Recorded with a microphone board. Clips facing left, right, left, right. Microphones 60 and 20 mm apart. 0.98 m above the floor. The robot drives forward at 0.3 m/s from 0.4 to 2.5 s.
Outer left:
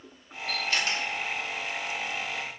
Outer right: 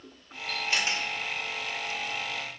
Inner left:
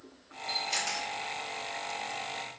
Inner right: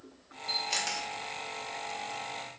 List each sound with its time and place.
0.5 s a camera shutter: 20° right (ahead or behind), 1.3 m; by 1.1 s 25° right (ahead or behind), 1.1 m